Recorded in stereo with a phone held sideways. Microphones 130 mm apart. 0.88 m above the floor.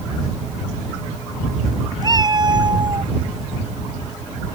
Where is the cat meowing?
30° right (ahead or behind); by 3.1 s 35° right (ahead or behind).